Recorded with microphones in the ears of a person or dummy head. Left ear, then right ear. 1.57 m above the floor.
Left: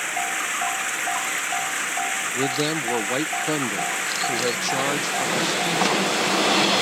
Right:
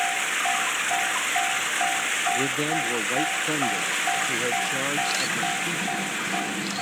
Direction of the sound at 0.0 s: 10° left (ahead or behind).